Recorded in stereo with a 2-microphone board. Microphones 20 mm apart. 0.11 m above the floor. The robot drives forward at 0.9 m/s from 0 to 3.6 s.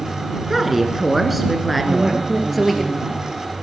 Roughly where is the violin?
I don't hear a violin.